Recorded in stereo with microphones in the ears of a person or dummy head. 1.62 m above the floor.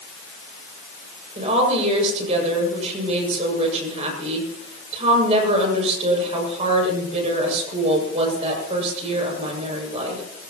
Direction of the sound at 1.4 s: 40° right (ahead or behind).